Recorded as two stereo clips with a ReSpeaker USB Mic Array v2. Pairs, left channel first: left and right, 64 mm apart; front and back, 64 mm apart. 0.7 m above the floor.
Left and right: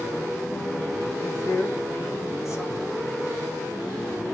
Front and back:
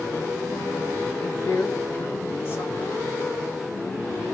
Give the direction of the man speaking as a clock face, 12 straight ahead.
10 o'clock.